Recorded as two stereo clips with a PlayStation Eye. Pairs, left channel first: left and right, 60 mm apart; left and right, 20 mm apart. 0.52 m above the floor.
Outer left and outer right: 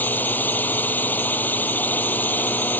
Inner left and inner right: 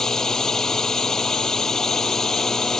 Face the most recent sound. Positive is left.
turn(degrees=30)  # may be behind; listen again after turning